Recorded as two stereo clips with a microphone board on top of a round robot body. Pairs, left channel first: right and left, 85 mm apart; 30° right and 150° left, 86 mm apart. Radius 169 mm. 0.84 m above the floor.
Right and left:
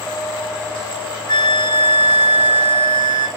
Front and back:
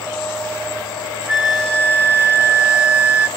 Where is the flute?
135° right, 1.2 m.